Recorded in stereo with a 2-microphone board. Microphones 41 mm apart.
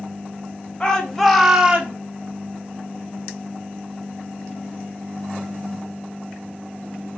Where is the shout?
20° left (ahead or behind), 0.8 m; by 2.0 s 35° right (ahead or behind), 0.5 m.